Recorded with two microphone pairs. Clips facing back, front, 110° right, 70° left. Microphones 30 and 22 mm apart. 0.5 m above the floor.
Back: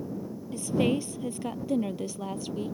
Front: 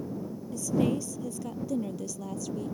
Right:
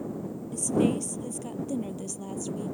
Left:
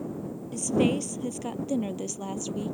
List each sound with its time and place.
0.5 s a woman speaking: 130° left; by 2.7 s 125° left